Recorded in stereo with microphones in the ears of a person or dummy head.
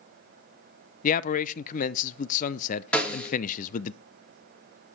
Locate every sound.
1.0 s a man speaking: 40° left (ahead or behind), 0.5 m
2.9 s a snare drum: 5° left (ahead or behind), 1.9 m